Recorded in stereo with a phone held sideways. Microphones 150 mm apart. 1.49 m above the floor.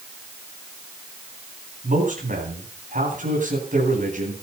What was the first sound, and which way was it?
A man speaking, 60° right (ahead or behind).